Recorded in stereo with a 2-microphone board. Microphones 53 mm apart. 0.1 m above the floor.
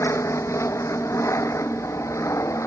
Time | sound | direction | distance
0.0 | an aircraft | 60° left (ahead or behind) | ?